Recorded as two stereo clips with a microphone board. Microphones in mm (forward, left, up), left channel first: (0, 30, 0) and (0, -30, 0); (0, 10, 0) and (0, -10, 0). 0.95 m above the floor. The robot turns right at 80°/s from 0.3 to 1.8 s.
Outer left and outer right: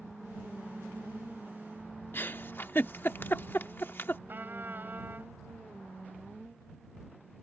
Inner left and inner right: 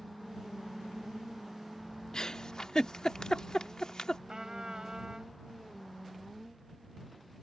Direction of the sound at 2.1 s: 35° left (ahead or behind).